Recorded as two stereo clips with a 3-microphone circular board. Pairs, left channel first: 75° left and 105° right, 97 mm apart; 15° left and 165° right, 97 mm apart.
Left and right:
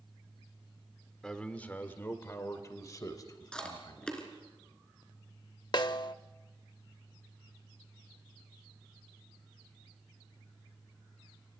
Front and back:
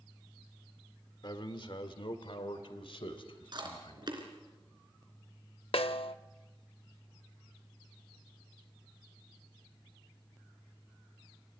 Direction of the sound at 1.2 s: 5° right.